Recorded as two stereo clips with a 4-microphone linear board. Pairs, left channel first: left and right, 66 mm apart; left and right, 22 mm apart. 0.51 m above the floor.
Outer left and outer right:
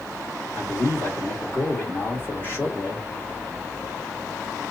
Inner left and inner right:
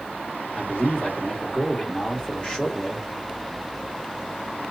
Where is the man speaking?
40° left (ahead or behind), 1.3 m.